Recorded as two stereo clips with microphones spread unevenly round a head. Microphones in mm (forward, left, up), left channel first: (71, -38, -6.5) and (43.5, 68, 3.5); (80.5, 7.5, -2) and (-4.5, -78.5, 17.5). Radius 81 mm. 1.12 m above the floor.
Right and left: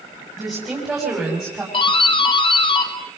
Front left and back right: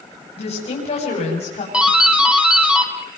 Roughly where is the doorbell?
Ahead right.